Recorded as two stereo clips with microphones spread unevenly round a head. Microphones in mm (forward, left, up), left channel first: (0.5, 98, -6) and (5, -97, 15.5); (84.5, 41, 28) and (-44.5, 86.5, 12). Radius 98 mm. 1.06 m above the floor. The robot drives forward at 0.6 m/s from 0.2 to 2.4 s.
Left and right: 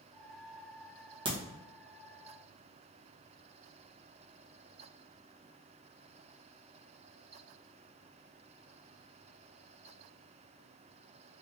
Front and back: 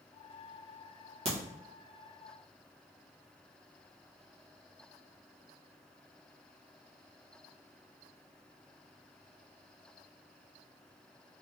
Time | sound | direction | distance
1.2 | a crack | 160° right | 1.0 m